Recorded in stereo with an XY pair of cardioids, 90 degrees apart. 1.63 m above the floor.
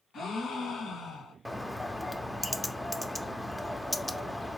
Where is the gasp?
70° left, 1.5 m.